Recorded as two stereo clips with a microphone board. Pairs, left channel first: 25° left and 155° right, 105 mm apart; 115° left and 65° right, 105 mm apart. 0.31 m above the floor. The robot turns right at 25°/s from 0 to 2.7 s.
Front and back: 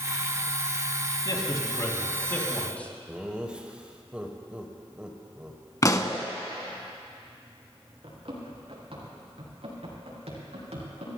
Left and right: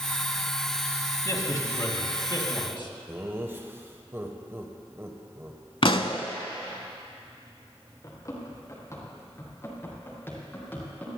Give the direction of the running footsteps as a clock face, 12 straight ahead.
6 o'clock.